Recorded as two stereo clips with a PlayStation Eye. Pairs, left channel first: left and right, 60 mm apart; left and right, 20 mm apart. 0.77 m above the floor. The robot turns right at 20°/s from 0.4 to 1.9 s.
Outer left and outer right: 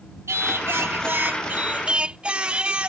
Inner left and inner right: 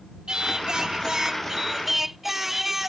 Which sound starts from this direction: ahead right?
Singing, at 0.3 s.